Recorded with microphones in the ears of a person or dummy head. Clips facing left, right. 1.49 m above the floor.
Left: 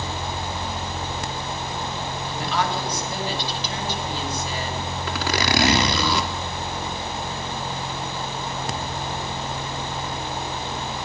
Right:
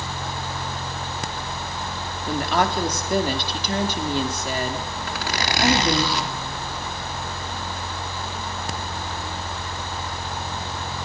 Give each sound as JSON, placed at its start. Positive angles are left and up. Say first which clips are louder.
{"t": 2.3, "sound": "a woman speaking", "louder": "right 4 dB", "side_deg": -45, "distance_m": 4.5}
{"t": 5.1, "sound": "a zipper", "louder": "left 5 dB", "side_deg": 70, "distance_m": 3.5}